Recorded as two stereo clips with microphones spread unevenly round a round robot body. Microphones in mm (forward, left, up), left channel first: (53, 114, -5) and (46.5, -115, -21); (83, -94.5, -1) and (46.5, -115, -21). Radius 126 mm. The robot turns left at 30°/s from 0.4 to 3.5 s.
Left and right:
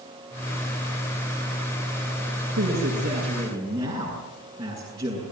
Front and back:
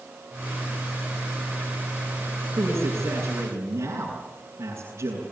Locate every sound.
2.6 s a man speaking: 130° right, 7 m; by 5.2 s 160° right, 7 m